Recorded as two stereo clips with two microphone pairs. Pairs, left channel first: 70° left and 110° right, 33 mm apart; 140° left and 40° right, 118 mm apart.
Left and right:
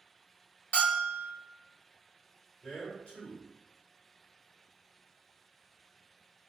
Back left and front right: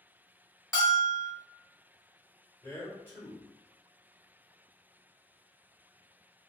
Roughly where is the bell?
Left.